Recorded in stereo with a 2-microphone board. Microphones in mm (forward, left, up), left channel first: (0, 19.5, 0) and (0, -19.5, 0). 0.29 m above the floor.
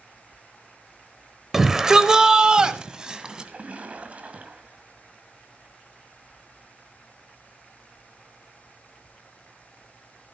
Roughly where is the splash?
Right.